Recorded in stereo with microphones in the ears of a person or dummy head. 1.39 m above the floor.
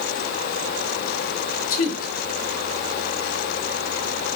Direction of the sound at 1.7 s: 45° left (ahead or behind).